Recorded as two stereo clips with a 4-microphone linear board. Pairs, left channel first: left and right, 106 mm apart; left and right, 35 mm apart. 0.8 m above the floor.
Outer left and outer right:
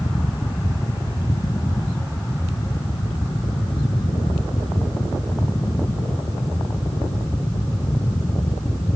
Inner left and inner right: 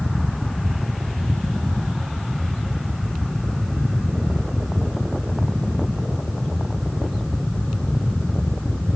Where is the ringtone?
I don't hear a ringtone.